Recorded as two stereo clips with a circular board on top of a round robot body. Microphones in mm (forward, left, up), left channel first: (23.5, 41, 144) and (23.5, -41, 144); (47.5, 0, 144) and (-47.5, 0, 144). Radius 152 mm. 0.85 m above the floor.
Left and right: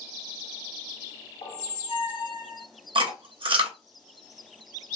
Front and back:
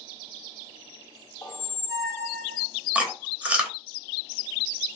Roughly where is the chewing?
Right.